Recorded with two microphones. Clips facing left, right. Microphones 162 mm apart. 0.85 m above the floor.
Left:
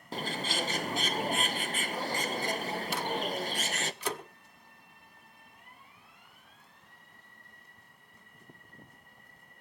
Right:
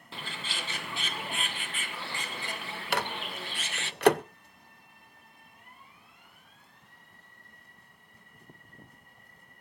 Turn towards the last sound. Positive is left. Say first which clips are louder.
# right 1 dB
turn(degrees=-70)  # may be behind; listen again after turning